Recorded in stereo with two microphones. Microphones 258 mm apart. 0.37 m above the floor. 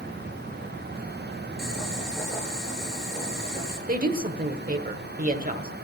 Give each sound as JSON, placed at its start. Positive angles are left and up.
{"t": 1.6, "sound": "boiling", "side_deg": 0, "distance_m": 7.0}
{"t": 3.9, "sound": "a woman speaking", "side_deg": -35, "distance_m": 1.0}